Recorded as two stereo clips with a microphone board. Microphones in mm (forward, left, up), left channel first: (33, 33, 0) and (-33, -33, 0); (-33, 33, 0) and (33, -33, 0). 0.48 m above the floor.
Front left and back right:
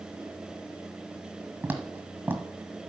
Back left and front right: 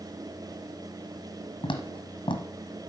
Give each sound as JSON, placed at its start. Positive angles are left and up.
{"t": 1.6, "sound": "footsteps", "azimuth_deg": 155, "distance_m": 1.5}